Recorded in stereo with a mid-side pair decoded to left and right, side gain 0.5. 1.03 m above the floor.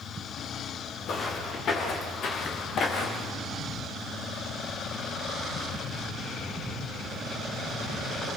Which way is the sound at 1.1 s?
55° left.